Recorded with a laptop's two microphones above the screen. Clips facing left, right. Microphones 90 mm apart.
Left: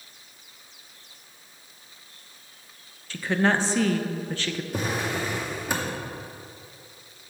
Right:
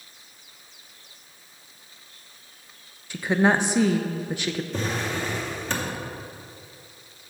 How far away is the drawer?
About 0.7 m.